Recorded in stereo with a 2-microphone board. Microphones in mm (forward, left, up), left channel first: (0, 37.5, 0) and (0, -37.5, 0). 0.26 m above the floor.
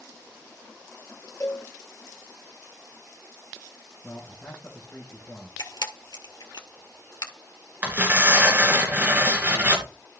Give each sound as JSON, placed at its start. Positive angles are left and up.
{"t": 1.4, "sound": "a cowbell", "side_deg": 40, "distance_m": 2.5}
{"t": 4.0, "sound": "a man speaking", "side_deg": 20, "distance_m": 3.0}
{"t": 5.6, "sound": "a camera shutter", "side_deg": 70, "distance_m": 1.6}
{"t": 7.8, "sound": "tearing paper", "side_deg": -25, "distance_m": 2.5}